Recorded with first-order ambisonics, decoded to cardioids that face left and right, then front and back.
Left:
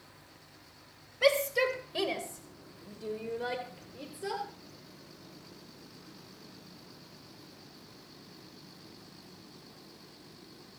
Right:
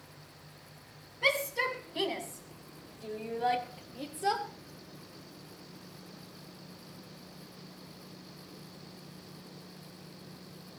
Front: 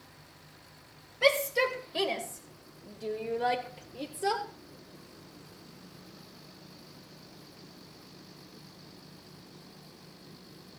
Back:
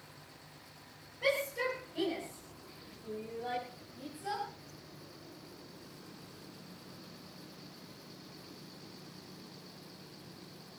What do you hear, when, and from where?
1.2 s a shout: 45° left, 4.5 m; by 4.4 s 5° right, 3.5 m